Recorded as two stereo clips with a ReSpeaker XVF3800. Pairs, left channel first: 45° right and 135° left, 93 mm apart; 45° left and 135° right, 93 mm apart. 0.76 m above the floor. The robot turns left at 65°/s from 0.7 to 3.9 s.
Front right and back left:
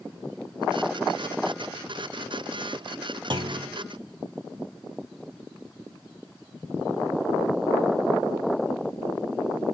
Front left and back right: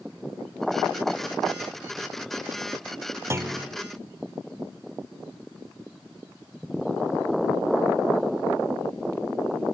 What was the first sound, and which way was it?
A clunk, 165° left.